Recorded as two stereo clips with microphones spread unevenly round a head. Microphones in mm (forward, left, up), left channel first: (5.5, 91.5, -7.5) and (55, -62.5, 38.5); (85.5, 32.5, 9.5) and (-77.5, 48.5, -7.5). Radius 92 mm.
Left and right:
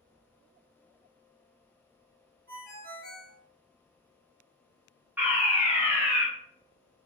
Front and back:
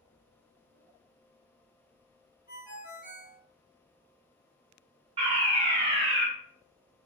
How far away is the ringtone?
About 1.7 m.